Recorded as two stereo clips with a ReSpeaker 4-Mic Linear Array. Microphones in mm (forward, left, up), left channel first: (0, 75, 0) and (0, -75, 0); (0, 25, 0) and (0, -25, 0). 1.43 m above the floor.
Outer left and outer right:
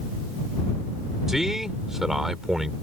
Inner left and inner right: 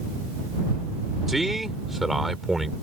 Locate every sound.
1.3 s a man speaking: centre (ahead or behind)